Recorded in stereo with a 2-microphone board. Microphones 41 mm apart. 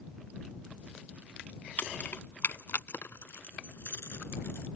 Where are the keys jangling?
50° left (ahead or behind); by 4.7 s 75° left (ahead or behind).